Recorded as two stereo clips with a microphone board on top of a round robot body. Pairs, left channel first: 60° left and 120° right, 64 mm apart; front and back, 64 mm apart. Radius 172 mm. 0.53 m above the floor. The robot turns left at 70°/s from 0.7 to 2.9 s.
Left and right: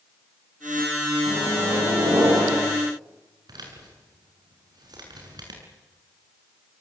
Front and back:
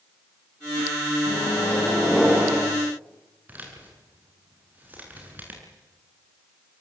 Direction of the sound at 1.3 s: 30° right.